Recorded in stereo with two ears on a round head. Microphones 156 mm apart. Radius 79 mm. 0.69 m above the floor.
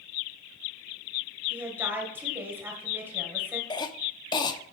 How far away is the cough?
About 0.9 m.